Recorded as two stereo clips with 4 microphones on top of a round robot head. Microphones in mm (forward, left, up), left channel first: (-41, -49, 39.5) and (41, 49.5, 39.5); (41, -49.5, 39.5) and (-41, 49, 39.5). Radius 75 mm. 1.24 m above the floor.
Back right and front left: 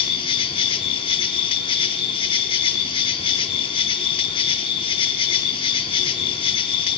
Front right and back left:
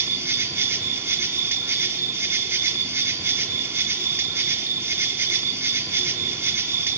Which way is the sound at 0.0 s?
165° right.